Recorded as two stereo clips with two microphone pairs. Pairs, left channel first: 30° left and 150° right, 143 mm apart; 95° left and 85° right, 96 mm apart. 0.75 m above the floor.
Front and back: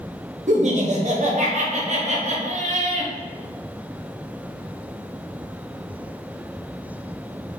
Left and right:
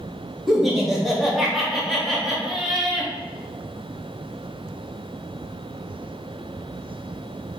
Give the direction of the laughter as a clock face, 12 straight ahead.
6 o'clock.